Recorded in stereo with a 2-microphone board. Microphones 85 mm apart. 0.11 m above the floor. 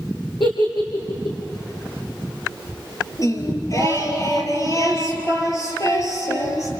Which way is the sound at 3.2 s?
40° left (ahead or behind).